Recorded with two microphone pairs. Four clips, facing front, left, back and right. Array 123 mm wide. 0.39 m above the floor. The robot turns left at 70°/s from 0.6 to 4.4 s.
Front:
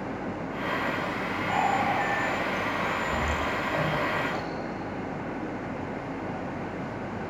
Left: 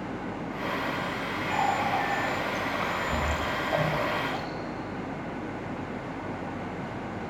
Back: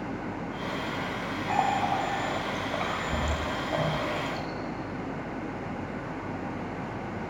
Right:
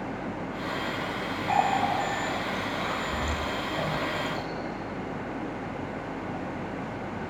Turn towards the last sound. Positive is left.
turn(degrees=60)